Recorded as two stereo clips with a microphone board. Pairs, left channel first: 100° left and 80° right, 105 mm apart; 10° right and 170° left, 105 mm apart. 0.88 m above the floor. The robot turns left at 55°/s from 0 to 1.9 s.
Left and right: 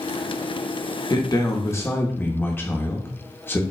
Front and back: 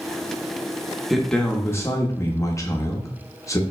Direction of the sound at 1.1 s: 80° left.